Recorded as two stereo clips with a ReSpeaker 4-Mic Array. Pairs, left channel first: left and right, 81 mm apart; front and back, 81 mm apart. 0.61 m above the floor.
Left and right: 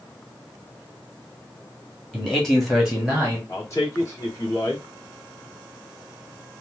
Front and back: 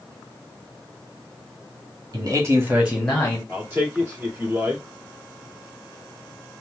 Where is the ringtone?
I don't hear a ringtone.